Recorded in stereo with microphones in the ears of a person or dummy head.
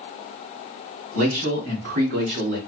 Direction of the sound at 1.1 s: 75° right (ahead or behind).